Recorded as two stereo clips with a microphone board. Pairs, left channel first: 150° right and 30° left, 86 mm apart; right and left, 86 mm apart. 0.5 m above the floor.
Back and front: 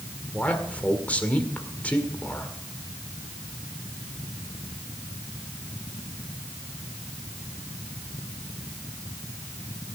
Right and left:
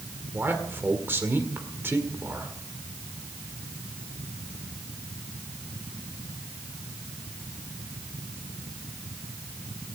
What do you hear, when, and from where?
0.3 s a man speaking: 145° left, 1.8 m